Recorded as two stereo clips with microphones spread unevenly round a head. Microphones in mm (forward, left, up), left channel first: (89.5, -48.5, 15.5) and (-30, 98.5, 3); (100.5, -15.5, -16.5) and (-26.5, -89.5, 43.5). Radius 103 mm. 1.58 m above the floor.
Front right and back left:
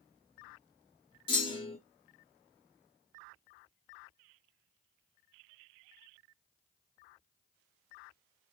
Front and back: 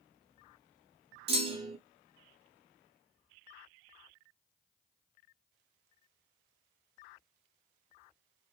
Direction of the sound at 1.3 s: 115° right.